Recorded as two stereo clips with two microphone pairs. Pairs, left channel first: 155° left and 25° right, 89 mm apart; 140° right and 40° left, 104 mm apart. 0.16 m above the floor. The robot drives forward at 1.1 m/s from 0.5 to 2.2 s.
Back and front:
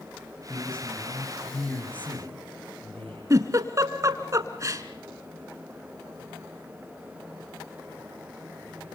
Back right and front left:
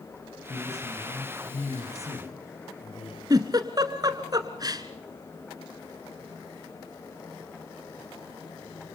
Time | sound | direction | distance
0.5 | a man speaking | 130° right | 10 m
3.3 | a giggle | 10° left | 1.4 m